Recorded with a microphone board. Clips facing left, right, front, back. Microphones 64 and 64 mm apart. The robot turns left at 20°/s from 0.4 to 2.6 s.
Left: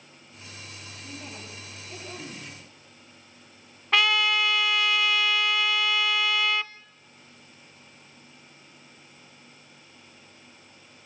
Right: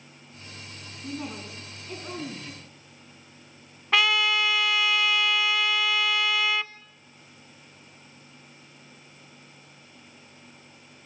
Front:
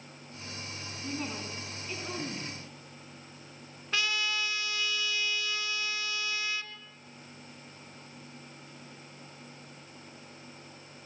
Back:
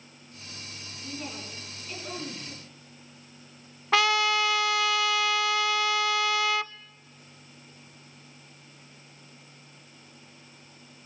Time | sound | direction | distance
1.0 | a woman speaking | 60° right | 3.5 m
3.9 | a trumpet | straight behind | 0.6 m